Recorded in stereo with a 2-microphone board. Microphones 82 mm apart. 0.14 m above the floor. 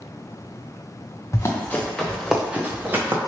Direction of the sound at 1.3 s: 35° left (ahead or behind).